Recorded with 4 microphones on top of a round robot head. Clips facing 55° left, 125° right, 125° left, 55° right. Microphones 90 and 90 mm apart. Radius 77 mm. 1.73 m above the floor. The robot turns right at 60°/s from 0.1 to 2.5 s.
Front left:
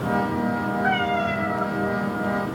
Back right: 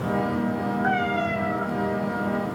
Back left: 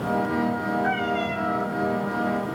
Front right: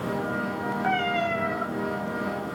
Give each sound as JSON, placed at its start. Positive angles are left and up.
{"t": 0.8, "sound": "a cat meowing", "azimuth_deg": -65, "distance_m": 1.6}